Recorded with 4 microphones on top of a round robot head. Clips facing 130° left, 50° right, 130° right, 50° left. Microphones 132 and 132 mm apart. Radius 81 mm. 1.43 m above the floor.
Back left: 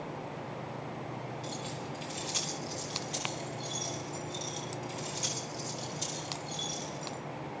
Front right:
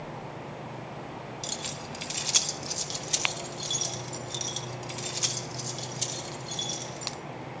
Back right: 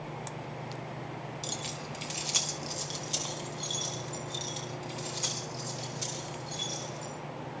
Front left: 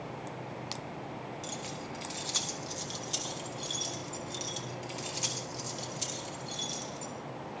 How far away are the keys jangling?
About 1.4 m.